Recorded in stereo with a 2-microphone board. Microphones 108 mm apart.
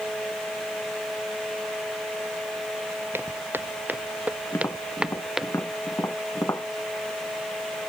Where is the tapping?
25° left (ahead or behind).